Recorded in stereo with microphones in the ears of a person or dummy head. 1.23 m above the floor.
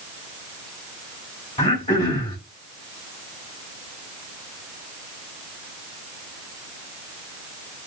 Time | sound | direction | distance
1.6 | throat clearing | 35° left (ahead or behind) | 1.8 m